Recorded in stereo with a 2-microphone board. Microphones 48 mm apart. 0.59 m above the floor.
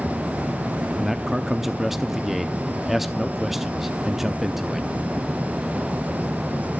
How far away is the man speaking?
About 0.7 m.